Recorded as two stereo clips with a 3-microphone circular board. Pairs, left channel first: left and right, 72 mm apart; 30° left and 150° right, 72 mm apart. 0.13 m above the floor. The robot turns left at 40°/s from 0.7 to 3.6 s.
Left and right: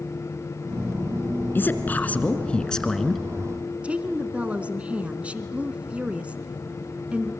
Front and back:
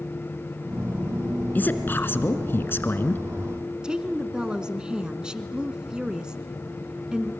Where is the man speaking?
70° left, 1.5 m; by 3.3 s straight ahead, 1.5 m.